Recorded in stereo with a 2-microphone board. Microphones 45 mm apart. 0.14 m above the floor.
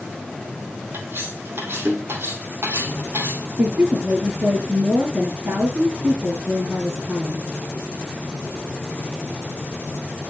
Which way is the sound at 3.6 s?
50° right (ahead or behind).